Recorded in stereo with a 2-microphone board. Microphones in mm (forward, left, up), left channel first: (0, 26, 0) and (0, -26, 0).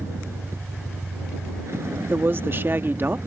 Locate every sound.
0.0 s a vehicle: 55° right (ahead or behind)
2.1 s a woman speaking: 45° right (ahead or behind)